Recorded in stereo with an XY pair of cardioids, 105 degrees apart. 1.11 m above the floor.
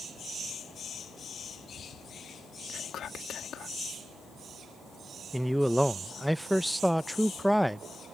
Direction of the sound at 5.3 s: Straight ahead.